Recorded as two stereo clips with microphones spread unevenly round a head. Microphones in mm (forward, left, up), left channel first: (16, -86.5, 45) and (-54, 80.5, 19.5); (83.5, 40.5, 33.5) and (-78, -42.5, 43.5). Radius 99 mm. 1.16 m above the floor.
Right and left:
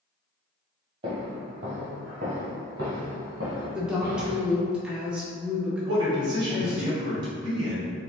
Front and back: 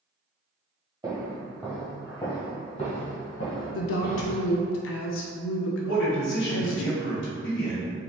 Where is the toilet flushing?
No toilet flushing in this recording.